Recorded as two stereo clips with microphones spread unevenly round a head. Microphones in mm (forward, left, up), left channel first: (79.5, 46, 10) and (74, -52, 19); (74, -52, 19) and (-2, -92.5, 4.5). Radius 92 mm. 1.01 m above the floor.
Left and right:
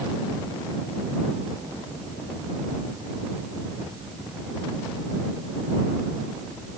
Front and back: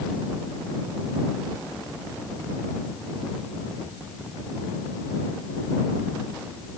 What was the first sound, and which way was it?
Only background noise.